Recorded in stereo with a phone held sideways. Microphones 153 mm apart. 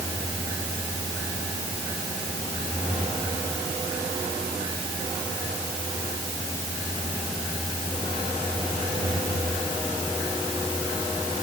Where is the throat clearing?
No throat clearing in this recording.